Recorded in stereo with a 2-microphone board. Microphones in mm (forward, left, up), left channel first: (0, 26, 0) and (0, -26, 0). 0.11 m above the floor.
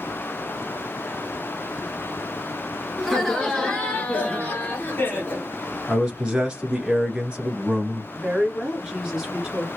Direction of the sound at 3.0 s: 5° left (ahead or behind).